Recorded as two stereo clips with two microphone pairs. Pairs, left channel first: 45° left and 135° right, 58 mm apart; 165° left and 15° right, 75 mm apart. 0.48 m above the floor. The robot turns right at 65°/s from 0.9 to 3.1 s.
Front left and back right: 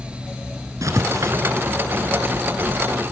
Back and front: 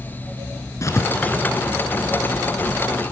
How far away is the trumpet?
No trumpet in this recording.